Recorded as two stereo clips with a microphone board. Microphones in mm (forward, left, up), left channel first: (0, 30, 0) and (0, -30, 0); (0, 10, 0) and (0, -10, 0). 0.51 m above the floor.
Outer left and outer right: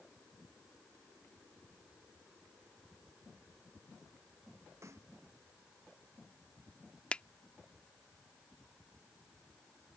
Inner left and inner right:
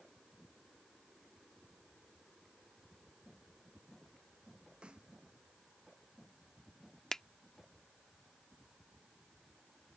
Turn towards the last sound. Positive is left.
turn(degrees=20)  # may be behind; listen again after turning